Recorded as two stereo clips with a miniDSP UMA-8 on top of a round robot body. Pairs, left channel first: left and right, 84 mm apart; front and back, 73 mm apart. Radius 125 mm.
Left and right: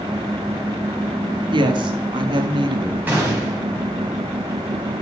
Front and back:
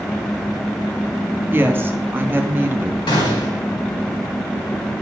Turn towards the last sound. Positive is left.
turn(degrees=-20)